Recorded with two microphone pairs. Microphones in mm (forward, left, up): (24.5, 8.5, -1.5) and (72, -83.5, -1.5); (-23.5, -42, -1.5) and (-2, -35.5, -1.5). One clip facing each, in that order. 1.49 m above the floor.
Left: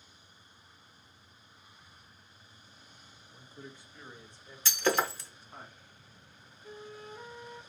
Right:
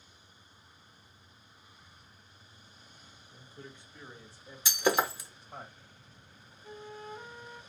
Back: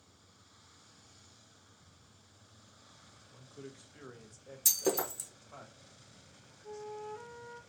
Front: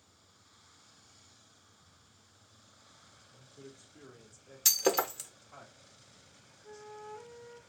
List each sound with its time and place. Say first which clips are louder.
3.3 s a man speaking: left 1 dB, back 3 dB; 170° right, 1.6 m; by 5.7 s 100° right, 1.5 m
4.7 s breaking glass: right 1 dB, front 3 dB; straight ahead, 0.7 m
6.6 s a flute: right 2 dB, back 4 dB; 105° right, 2 m